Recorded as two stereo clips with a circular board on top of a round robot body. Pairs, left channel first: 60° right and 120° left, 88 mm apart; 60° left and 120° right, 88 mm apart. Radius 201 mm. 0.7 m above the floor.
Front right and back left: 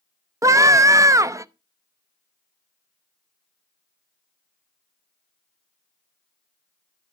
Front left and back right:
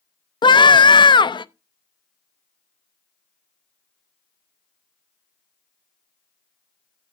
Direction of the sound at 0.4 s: 70° left.